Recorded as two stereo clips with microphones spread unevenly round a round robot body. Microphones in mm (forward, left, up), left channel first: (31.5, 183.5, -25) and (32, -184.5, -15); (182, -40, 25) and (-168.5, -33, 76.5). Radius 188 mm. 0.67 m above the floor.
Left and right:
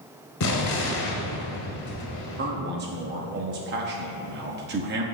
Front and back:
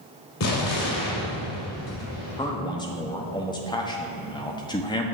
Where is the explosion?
45° left, 1.7 m.